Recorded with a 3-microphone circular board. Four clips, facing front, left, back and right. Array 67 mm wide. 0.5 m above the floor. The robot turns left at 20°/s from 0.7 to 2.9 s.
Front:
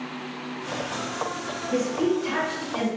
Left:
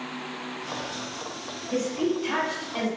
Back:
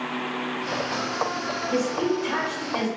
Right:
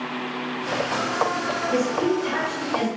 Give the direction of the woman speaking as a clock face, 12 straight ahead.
7 o'clock.